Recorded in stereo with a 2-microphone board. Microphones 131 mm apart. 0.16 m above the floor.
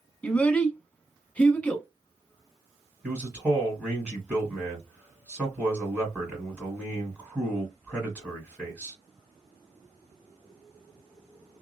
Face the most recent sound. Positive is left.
turn(degrees=-10)  # may be behind; listen again after turning